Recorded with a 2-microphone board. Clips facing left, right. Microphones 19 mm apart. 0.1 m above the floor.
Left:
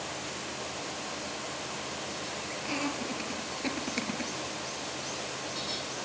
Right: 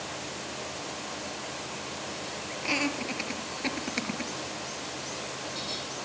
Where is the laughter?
30° right (ahead or behind), 2.5 m; by 4.3 s 5° right (ahead or behind), 2 m.